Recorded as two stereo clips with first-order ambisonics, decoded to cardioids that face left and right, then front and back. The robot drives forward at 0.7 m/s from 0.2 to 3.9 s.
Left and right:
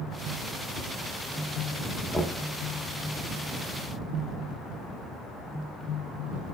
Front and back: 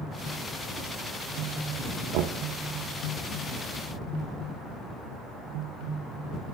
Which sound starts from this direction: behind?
Knocking, at 2.1 s.